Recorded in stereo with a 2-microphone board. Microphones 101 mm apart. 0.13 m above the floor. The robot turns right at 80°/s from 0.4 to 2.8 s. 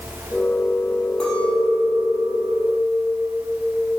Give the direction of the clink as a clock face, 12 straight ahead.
6 o'clock.